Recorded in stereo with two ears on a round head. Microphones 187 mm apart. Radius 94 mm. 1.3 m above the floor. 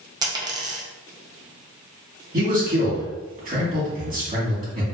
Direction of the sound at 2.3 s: 40° right (ahead or behind).